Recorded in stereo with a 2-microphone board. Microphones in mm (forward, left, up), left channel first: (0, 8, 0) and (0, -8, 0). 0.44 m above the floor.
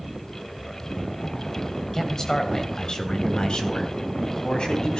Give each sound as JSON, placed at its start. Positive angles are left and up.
{"t": 1.9, "sound": "a man speaking", "side_deg": 35, "distance_m": 2.5}